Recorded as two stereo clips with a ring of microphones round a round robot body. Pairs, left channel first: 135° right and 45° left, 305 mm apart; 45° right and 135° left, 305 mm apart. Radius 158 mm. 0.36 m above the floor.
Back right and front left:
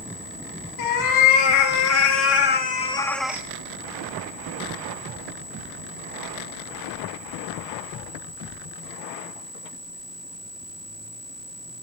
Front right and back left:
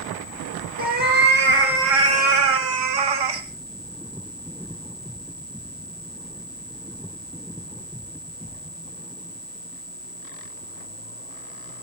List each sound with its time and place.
0.8 s a cat meowing: 160° right, 3.5 m; by 3.5 s 125° left, 1.7 m